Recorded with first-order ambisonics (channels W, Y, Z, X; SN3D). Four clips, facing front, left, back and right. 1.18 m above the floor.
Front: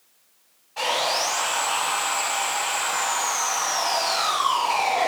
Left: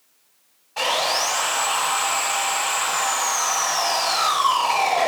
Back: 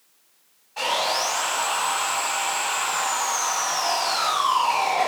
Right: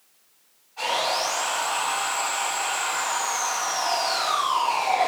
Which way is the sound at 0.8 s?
90° left.